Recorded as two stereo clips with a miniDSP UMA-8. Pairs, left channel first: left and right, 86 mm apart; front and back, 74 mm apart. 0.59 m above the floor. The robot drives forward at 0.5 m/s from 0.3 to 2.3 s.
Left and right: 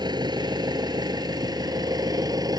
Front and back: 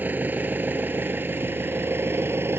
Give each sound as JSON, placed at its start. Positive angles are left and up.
{"t": 0.0, "sound": "an engine running", "azimuth_deg": -115}